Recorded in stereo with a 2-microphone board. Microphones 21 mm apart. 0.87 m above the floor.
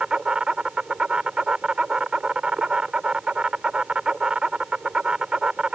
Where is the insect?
45° right (ahead or behind).